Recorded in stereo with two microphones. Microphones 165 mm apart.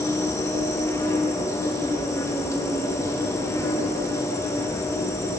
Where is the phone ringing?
I don't hear a phone ringing.